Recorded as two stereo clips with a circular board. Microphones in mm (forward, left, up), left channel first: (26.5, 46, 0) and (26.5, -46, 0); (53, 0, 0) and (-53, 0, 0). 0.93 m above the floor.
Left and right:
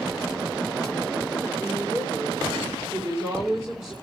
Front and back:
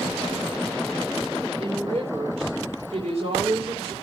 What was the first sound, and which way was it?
A woman speaking, 145° right.